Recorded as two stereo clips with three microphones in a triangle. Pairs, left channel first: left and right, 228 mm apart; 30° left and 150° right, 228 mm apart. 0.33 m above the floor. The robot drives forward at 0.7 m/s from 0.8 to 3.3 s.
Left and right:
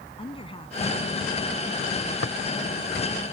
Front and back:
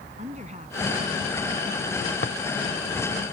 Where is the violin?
No violin in this recording.